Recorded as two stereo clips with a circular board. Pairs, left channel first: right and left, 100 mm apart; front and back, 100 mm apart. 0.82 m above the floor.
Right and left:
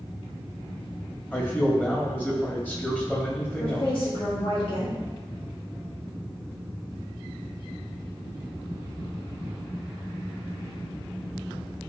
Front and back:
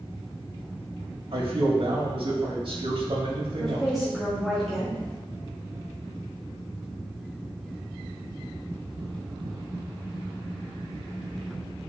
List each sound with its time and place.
1.3 s a man speaking: 160° right, 1.9 m
3.6 s a woman speaking: 90° right, 2 m